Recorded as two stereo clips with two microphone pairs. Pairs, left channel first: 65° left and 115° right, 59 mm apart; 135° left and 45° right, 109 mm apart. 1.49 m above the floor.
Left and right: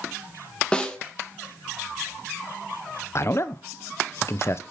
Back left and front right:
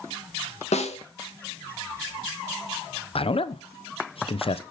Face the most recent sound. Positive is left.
turn(degrees=105)